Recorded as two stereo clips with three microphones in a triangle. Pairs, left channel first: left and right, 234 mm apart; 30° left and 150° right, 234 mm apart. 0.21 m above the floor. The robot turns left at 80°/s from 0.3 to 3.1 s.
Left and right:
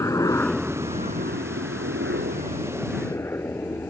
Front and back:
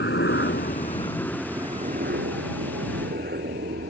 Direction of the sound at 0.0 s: 15° left.